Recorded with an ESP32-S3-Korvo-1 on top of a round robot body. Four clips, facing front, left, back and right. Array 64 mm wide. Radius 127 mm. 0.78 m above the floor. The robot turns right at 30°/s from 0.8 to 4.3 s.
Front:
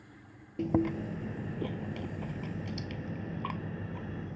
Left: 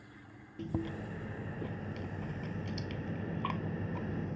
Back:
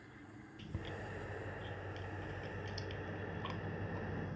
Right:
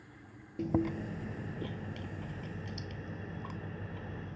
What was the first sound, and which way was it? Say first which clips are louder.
Chewing: right 6 dB, front 18 dB; 25° right.